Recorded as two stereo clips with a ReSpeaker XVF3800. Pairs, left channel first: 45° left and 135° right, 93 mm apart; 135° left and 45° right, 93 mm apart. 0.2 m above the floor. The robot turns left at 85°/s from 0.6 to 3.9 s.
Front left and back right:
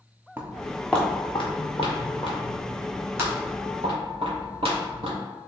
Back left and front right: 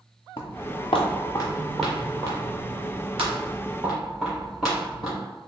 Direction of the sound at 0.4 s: 160° left.